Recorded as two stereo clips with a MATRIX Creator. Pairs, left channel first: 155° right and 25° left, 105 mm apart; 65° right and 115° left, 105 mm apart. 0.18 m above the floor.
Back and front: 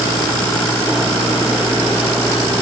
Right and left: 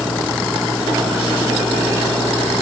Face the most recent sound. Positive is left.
No sound to turn to.